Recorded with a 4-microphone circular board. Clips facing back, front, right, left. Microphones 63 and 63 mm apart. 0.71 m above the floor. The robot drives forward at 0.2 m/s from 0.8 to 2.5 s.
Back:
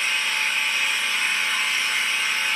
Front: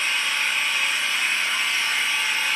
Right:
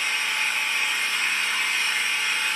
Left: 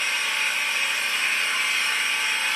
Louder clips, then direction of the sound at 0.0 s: Even, even; 100° left.